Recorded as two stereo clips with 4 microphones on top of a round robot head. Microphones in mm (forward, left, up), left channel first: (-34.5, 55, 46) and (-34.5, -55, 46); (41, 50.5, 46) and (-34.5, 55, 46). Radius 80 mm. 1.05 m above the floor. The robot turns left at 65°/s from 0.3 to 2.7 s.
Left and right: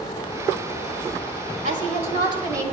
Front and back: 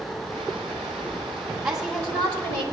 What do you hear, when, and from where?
1.6 s a woman speaking: 95° right, 5 m; by 2.6 s 160° right, 5 m